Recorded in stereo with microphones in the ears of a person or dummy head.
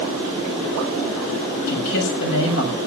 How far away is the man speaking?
About 7 m.